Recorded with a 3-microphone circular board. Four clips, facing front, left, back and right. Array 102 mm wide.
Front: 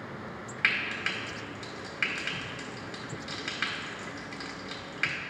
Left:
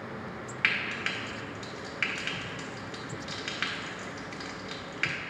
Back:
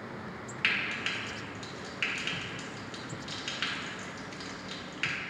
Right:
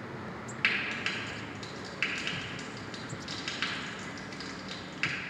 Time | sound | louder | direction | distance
0.6 | frying | left 1 dB, front 2 dB | 45° left | 1.0 m